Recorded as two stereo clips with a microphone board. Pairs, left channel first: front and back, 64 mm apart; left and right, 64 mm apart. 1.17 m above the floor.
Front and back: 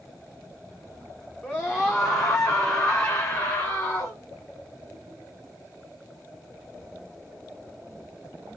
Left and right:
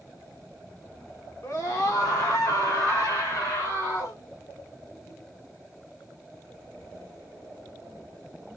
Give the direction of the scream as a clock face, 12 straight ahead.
10 o'clock.